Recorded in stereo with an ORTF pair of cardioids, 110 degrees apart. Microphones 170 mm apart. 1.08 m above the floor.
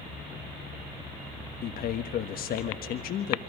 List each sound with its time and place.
1.6 s a man speaking: 60° left, 1.3 m